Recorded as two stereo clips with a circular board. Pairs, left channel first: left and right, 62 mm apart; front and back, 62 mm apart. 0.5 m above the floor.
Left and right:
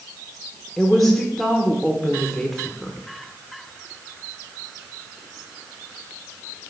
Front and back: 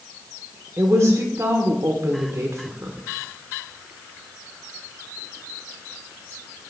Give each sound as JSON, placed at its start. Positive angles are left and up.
{"t": 0.8, "sound": "a woman speaking", "azimuth_deg": 180, "distance_m": 1.1}